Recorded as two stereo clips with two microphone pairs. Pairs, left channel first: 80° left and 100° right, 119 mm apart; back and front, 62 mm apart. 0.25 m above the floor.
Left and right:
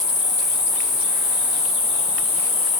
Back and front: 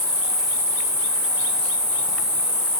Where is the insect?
35° right, 7.5 m.